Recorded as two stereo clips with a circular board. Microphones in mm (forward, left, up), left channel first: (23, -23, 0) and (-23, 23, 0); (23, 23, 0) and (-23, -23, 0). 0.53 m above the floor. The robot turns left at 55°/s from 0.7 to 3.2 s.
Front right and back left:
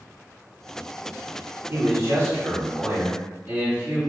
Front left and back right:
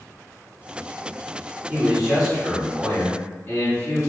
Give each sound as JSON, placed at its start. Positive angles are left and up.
{"t": 1.7, "sound": "a man speaking", "azimuth_deg": 165, "distance_m": 1.5}